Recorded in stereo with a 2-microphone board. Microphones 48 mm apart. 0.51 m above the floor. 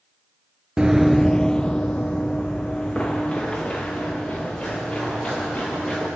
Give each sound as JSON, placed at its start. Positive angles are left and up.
{"t": 0.8, "sound": "running footsteps", "side_deg": -15, "distance_m": 0.5}